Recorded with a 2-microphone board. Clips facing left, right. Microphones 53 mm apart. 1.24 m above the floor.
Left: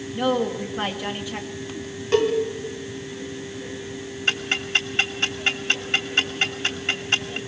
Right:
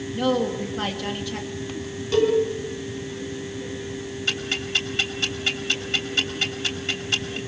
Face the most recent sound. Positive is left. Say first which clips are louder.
# left 4 dB
turn(degrees=40)  # may be behind; listen again after turning